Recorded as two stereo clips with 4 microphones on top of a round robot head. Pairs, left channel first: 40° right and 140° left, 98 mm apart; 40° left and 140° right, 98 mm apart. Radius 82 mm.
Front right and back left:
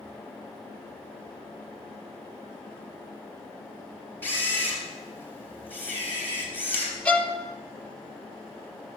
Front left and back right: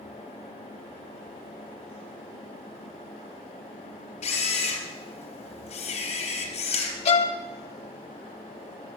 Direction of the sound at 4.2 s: 30° left.